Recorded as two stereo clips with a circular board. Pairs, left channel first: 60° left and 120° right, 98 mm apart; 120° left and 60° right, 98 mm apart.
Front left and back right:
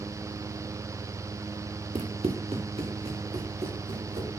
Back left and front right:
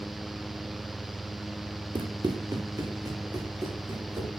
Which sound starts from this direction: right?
Running footsteps, at 1.9 s.